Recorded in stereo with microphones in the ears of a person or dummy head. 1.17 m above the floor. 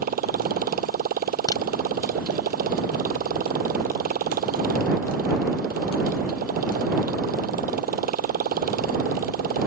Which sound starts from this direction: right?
A motorcycle, at 0.0 s.